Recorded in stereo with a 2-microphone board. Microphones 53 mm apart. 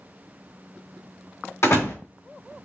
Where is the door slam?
70° left (ahead or behind), 2 m.